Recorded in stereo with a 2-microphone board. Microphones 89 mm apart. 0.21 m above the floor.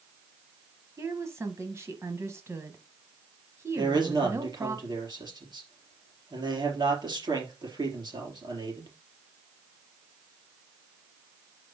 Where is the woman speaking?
30° right (ahead or behind), 1.2 m.